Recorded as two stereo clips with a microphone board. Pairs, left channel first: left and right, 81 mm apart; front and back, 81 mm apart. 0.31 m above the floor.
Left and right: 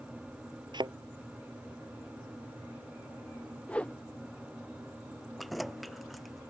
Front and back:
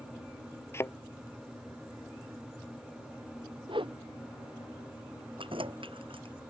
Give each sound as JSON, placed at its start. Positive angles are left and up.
{"t": 0.7, "sound": "a thud", "azimuth_deg": -60}
{"t": 3.7, "sound": "a whoosh", "azimuth_deg": 165}
{"t": 5.4, "sound": "keys jangling", "azimuth_deg": 180}